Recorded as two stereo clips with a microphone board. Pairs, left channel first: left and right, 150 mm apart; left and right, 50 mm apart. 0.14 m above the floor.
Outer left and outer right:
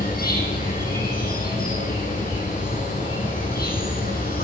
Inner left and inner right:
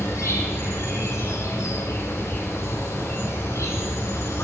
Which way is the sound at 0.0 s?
70° left (ahead or behind).